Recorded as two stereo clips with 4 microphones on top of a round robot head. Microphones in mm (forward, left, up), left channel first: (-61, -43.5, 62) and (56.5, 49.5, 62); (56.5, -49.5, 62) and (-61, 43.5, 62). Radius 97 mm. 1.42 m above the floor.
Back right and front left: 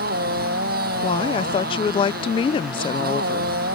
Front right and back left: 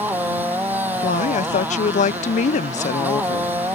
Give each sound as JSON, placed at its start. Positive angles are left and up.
{"t": 0.0, "sound": "a motorcycle", "azimuth_deg": 65}
{"t": 1.0, "sound": "a woman speaking", "azimuth_deg": -85}